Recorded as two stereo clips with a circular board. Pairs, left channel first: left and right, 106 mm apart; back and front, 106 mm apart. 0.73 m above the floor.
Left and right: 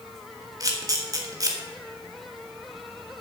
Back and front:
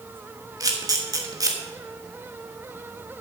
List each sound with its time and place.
0.6 s a camera shutter: 45° right, 1.8 m